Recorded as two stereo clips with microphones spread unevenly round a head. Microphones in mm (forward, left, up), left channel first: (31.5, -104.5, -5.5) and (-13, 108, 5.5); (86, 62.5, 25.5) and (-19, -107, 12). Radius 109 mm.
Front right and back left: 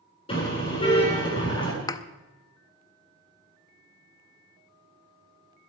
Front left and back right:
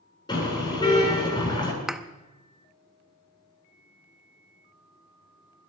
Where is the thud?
30° right, 0.7 m.